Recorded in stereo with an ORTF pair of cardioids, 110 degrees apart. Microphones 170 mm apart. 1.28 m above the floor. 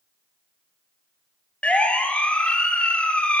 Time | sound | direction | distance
1.6 | a siren | 5° left | 3.5 m